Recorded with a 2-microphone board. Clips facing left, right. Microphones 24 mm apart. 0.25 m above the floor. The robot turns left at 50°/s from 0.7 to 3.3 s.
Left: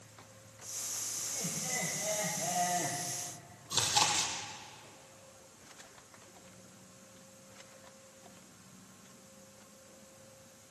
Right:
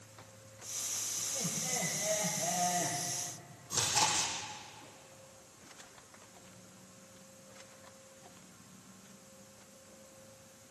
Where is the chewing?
85° left, 4 m.